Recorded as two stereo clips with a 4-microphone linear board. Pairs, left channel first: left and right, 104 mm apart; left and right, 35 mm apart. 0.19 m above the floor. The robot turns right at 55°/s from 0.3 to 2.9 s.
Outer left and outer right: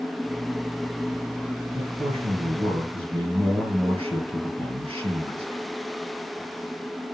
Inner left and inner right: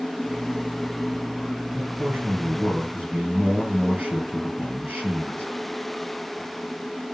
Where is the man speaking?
125° right, 3.5 m; by 5.5 s 65° right, 3.5 m.